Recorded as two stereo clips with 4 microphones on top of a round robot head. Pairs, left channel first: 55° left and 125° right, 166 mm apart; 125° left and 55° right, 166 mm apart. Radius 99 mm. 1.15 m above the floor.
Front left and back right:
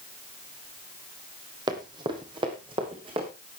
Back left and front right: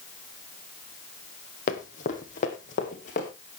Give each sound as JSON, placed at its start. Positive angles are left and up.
{"t": 1.7, "sound": "running footsteps", "azimuth_deg": 170, "distance_m": 2.0}